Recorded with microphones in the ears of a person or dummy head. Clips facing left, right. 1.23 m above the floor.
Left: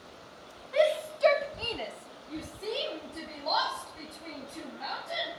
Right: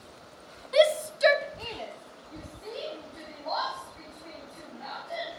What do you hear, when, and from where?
0.7 s a shout: 45° right (ahead or behind), 0.6 m; by 5.3 s 50° left (ahead or behind), 3 m